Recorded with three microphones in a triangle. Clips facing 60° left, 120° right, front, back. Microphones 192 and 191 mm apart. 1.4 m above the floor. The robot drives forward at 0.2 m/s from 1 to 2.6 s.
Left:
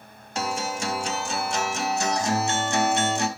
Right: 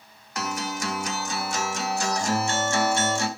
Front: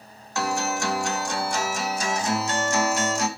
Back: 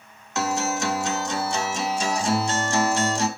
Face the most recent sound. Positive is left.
turn(degrees=125)